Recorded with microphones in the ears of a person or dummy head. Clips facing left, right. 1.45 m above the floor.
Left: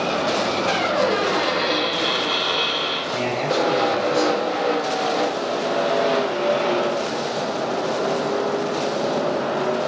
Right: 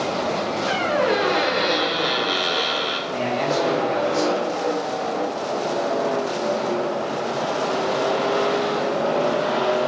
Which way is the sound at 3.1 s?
Centre (ahead or behind).